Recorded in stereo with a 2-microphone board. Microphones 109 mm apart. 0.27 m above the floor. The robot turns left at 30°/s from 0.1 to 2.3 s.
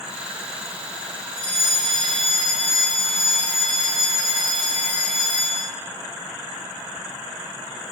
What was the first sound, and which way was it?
A fire alarm, 35° right (ahead or behind).